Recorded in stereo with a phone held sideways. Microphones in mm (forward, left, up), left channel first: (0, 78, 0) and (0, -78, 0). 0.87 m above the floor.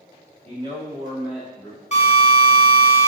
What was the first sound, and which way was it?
A man speaking, 40° right (ahead or behind).